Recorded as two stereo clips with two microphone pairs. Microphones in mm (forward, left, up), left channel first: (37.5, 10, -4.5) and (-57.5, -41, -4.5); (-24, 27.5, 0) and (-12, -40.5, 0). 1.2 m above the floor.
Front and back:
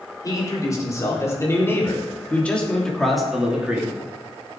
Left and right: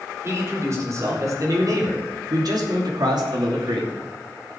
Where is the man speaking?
30° right, 4.5 m; by 3.9 s 75° right, 2.5 m.